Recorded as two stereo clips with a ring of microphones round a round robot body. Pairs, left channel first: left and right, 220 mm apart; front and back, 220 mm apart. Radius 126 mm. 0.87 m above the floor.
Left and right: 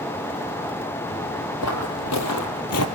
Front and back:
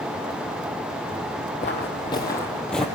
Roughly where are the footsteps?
Ahead left.